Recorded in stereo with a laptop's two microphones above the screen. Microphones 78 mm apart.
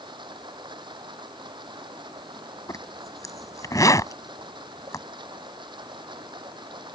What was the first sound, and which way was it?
Running water, 90° right.